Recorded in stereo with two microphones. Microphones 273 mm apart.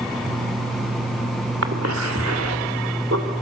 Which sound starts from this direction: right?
A cough, at 1.6 s.